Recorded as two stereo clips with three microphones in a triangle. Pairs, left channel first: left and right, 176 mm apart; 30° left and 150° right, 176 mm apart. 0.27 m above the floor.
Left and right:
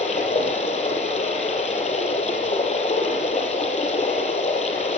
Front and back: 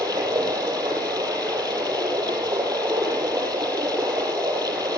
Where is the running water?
140° left, 6 m.